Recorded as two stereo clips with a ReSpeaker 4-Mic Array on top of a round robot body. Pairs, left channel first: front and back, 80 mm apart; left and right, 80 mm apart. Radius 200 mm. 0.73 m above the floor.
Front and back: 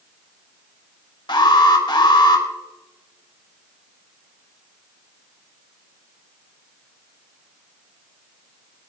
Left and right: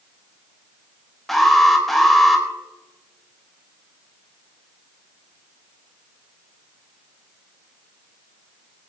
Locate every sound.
1.3 s an alarm: straight ahead, 3.5 m